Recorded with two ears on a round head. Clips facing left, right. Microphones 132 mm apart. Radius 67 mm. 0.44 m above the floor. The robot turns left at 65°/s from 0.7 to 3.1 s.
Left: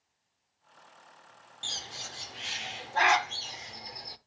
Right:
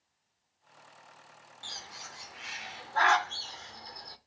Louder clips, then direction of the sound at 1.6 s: Left 3 dB; 25° left (ahead or behind).